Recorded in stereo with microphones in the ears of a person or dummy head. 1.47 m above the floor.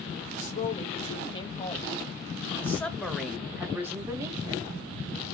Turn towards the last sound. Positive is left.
turn(degrees=-25)  # may be behind; listen again after turning